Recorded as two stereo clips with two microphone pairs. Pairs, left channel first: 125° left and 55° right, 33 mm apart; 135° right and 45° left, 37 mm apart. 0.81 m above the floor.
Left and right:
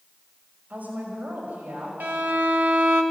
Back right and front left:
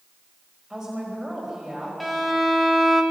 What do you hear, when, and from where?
0.7 s a woman speaking: 35° right, 4.5 m
2.0 s a violin: 45° right, 1.2 m